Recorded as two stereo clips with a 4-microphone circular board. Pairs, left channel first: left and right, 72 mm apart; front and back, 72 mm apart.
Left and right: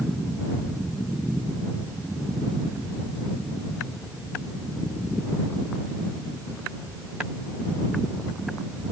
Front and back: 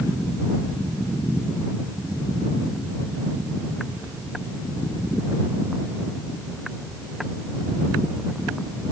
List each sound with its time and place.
Only background noise.